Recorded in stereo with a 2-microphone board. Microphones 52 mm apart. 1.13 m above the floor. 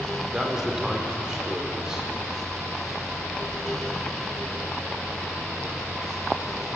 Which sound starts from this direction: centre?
A man speaking, at 0.3 s.